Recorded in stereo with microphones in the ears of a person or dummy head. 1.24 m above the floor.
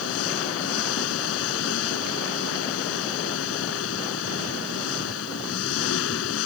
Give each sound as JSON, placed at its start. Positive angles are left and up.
{"t": 0.0, "sound": "an engine running", "side_deg": 85}